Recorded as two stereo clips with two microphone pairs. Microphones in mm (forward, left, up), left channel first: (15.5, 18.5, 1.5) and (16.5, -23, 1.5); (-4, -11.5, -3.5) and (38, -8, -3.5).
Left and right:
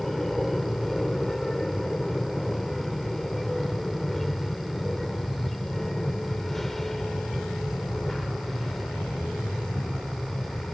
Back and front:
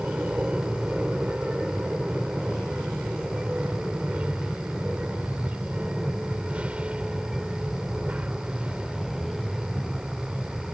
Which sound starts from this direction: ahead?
An aircraft, at 0.0 s.